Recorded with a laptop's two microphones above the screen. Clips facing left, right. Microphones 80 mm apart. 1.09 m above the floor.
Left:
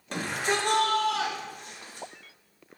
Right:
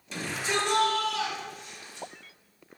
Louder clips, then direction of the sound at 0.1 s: Left 2 dB; 55° left (ahead or behind).